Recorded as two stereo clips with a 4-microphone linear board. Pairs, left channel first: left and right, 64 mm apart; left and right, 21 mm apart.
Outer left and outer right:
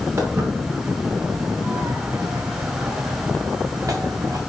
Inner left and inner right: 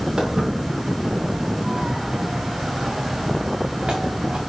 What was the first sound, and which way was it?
Footsteps, 40° right (ahead or behind).